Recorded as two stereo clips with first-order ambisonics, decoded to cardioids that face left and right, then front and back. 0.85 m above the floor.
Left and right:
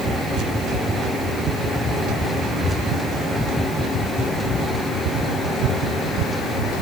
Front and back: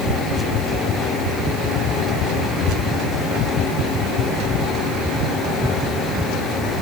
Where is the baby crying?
I don't hear a baby crying.